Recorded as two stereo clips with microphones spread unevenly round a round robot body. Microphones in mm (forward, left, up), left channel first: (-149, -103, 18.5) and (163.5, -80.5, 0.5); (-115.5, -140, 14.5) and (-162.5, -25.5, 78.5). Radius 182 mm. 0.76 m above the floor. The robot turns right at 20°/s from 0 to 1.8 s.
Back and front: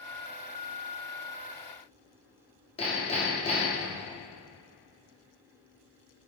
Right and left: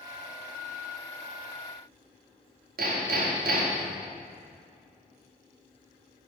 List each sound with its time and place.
2.8 s hammering: 110° left, 1.5 m